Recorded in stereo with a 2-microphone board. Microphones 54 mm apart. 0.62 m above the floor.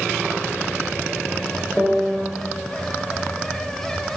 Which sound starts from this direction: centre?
A piano, at 1.8 s.